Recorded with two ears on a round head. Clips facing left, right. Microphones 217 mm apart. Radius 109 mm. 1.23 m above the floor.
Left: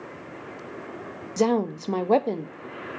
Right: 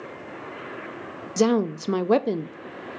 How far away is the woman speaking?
About 0.5 m.